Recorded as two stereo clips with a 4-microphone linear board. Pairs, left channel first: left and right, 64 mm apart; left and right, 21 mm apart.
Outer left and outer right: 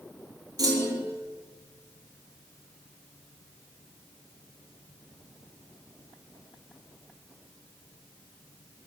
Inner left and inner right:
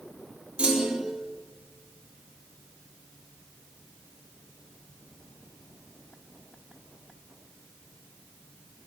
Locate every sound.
0.6 s a clunk: 75° right (ahead or behind), 1.3 m